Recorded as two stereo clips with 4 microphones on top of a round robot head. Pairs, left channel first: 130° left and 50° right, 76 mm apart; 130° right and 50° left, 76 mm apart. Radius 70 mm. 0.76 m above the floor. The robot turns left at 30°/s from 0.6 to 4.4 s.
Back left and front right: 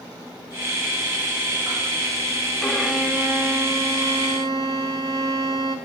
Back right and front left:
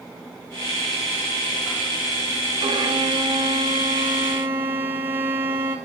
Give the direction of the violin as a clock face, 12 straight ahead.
11 o'clock.